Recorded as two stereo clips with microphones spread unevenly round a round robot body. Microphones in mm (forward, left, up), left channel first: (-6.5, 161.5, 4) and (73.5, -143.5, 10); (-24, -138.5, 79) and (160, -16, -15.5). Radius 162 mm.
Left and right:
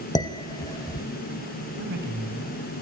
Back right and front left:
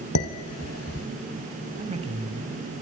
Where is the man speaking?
20° right, 3 m.